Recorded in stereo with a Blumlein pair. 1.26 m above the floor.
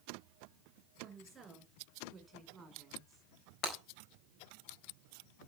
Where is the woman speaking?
15° right, 6.5 m.